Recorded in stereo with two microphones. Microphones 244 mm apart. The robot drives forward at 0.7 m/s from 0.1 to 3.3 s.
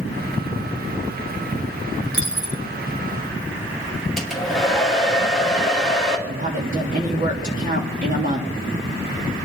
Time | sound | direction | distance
2.1 | a dropped coin | 60° right (ahead or behind) | 2.5 m
4.2 | a hair dryer | centre (ahead or behind) | 2.5 m
6.3 | a woman speaking | 35° right (ahead or behind) | 3 m